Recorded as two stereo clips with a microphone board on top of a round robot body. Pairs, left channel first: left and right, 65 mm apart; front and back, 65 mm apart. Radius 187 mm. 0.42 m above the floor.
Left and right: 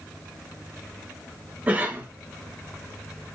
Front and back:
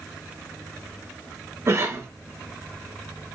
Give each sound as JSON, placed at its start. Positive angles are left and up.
{"t": 1.7, "sound": "a cough", "azimuth_deg": -145, "distance_m": 1.0}